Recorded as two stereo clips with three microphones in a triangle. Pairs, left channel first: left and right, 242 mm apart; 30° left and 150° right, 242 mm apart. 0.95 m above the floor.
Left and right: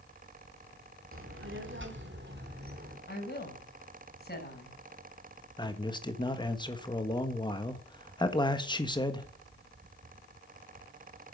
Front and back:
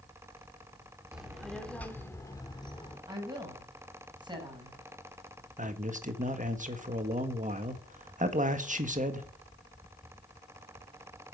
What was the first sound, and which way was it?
A child speaking, 65° right.